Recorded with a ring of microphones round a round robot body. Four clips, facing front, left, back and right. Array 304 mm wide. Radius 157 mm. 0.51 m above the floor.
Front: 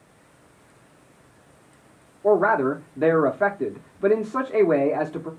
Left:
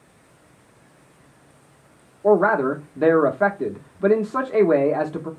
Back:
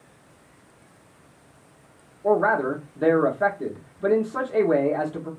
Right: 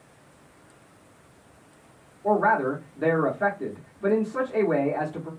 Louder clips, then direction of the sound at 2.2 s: Left 5 dB, front 2 dB; 65° left.